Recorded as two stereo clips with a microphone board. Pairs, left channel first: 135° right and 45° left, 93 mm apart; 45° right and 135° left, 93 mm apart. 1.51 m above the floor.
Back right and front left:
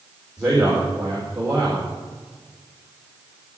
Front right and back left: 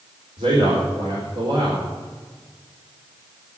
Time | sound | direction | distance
0.4 | a man speaking | 130° left | 4 m